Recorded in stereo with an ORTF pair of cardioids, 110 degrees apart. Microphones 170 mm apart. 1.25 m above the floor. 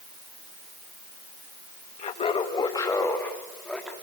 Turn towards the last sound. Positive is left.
turn(degrees=5)